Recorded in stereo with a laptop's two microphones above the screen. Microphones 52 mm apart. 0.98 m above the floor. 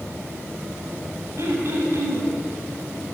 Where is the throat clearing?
65° right (ahead or behind), 6.5 m.